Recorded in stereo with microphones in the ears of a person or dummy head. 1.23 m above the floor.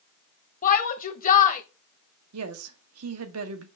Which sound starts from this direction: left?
A shout, at 0.6 s.